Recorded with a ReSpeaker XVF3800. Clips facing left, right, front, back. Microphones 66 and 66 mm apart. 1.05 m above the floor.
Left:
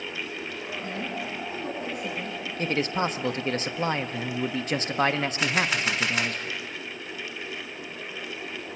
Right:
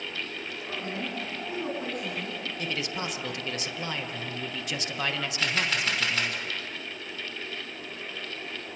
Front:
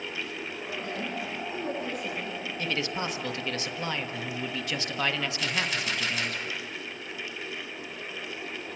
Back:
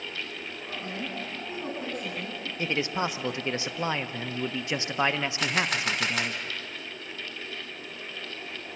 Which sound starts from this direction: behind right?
A woman speaking, at 0.7 s.